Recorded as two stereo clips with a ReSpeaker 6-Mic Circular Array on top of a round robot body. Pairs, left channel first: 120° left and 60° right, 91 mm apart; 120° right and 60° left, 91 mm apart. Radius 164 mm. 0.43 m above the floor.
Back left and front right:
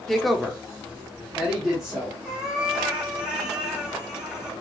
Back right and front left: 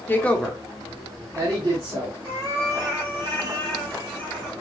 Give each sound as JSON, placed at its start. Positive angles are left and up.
{"t": 0.1, "sound": "a woman speaking", "azimuth_deg": -155, "distance_m": 1.3}
{"t": 2.2, "sound": "a cat meowing", "azimuth_deg": 20, "distance_m": 4.0}